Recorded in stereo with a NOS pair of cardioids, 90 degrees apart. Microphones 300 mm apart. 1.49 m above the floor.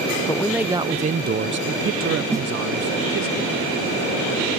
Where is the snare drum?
10° right.